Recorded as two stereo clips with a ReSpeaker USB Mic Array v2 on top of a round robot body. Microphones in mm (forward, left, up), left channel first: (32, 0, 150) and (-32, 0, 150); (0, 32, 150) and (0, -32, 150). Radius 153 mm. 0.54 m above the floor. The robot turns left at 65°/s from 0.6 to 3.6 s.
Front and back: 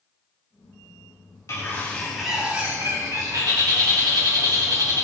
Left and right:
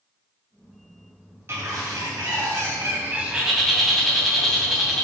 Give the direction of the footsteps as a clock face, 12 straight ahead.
No footsteps in this recording.